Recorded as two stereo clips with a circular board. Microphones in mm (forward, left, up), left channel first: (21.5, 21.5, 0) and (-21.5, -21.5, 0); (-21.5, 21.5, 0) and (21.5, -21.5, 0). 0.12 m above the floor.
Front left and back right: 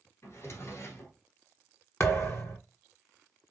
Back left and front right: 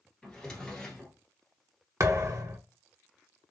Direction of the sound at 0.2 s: 55° left.